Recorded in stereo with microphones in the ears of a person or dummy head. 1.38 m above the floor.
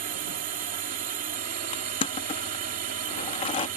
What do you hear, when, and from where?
0.0 s a drone: 45° right (ahead or behind)
1.7 s crushing: 25° left (ahead or behind)